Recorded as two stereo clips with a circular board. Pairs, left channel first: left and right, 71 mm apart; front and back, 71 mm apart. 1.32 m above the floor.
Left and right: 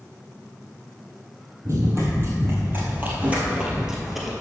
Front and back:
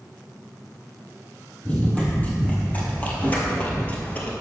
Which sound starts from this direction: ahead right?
Running footsteps, at 1.6 s.